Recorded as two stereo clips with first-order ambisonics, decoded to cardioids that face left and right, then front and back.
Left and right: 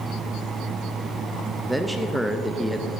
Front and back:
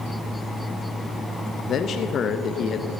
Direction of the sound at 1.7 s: 10° right.